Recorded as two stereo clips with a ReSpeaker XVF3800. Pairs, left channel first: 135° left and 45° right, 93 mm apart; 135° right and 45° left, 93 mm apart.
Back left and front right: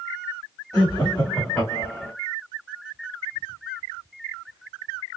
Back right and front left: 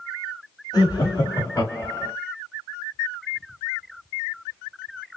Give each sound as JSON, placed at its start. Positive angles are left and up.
{"t": 0.7, "sound": "laughter", "azimuth_deg": -170, "distance_m": 2.0}